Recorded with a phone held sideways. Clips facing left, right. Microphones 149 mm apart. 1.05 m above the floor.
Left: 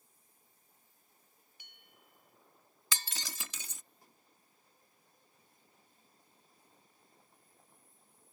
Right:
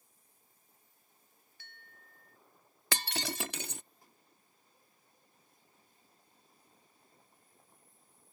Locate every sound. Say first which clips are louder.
1.6 s a bell: right 4 dB; 15° left (ahead or behind)
2.9 s breaking glass: right 9 dB; 65° right (ahead or behind)